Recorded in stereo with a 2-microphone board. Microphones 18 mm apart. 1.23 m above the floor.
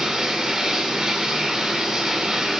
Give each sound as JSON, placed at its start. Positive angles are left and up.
{"t": 0.0, "sound": "running water", "side_deg": -35, "distance_m": 2.5}